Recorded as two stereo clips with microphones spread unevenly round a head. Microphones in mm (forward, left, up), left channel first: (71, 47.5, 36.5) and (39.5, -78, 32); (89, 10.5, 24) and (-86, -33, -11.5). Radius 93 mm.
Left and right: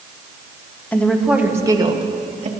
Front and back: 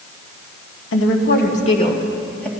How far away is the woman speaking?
About 1.6 m.